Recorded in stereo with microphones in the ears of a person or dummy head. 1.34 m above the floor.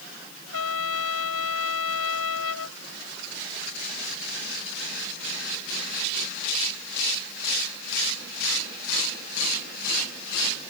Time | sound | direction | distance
0.5 | a trumpet | 85° left | ?